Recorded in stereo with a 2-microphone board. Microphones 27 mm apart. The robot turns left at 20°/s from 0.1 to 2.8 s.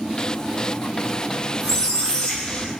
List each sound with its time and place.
1.6 s a squeak: 20° left (ahead or behind), 1.5 m; by 2.7 s 40° left (ahead or behind), 1.5 m